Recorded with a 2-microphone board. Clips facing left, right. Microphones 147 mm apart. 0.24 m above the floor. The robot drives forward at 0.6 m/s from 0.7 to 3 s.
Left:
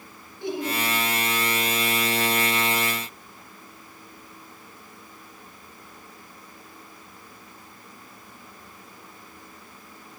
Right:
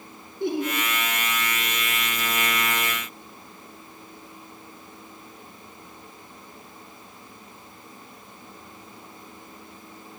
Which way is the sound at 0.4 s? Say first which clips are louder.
Right 3 dB; 60° right (ahead or behind).